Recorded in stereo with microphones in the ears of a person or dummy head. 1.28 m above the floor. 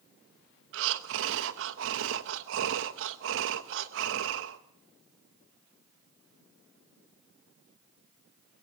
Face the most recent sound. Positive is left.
turn(degrees=-65)  # may be behind; listen again after turning